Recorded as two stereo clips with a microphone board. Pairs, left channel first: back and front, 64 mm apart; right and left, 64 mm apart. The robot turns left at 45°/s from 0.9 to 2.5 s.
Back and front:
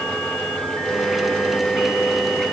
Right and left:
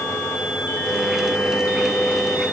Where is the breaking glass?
No breaking glass in this recording.